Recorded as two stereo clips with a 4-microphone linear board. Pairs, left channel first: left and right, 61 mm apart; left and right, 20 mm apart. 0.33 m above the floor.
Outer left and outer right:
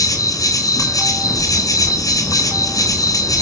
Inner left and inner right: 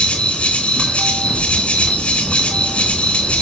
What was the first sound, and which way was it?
An insect, 75° left (ahead or behind).